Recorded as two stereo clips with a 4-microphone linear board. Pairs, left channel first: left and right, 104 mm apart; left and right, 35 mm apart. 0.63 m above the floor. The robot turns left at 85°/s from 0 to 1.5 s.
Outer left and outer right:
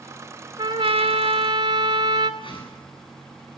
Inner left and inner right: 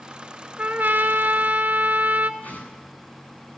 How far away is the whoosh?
About 7.5 m.